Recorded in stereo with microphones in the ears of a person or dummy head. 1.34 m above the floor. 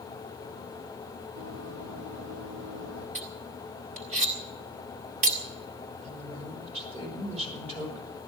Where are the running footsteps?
65° right (ahead or behind), 3 m; by 3.0 s 55° right (ahead or behind), 3 m.